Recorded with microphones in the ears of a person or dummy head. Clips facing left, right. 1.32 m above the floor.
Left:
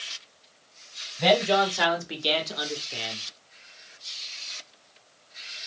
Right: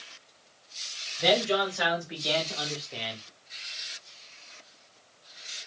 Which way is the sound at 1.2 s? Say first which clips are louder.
Left 4 dB; 70° left (ahead or behind).